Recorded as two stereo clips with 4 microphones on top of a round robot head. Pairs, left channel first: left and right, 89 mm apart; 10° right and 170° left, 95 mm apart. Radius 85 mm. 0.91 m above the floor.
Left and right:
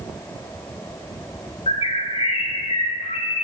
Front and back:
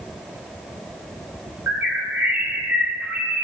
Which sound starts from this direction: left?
A bird, at 1.7 s.